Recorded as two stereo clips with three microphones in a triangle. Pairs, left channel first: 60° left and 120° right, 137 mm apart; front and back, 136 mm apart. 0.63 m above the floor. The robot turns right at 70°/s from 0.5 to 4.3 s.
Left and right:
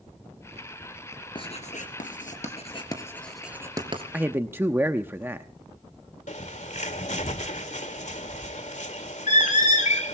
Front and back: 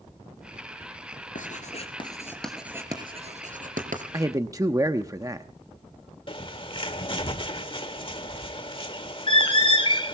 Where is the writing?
10° left, 3 m; by 4.0 s 165° right, 3 m.